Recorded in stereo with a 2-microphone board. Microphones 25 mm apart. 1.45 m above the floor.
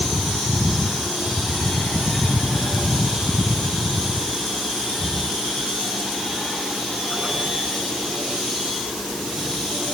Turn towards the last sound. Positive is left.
No sound to turn to.